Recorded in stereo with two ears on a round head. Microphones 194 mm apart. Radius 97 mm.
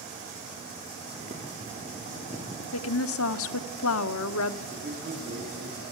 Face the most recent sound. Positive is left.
turn(degrees=-45)  # may be behind; listen again after turning